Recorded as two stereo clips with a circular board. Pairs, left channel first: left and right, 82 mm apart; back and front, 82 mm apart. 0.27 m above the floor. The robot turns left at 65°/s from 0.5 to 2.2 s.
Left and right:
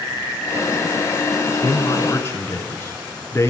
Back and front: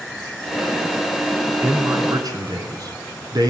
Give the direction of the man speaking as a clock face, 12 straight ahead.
10 o'clock.